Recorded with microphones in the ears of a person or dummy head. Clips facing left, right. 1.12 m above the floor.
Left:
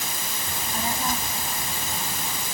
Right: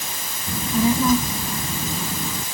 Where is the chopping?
I don't hear chopping.